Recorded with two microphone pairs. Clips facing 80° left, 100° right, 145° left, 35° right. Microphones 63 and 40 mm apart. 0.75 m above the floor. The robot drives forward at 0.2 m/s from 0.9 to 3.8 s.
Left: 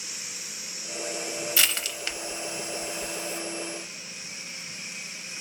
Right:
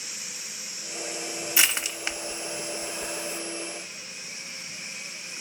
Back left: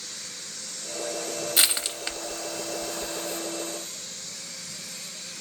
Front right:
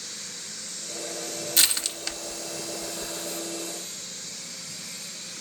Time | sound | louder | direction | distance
1.6 | crushing | right 3 dB, front right 1 dB | 155° right | 0.6 m